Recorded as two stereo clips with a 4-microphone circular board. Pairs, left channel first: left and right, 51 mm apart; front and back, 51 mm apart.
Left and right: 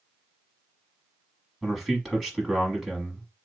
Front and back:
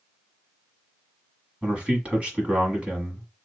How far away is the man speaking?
About 1.1 m.